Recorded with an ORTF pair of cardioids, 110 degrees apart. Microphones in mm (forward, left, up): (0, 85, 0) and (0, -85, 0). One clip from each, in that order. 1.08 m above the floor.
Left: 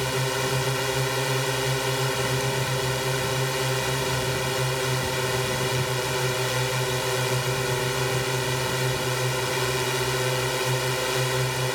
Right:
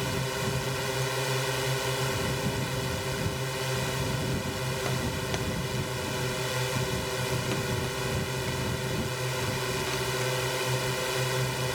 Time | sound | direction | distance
0.0 | a drone | 65° left | ?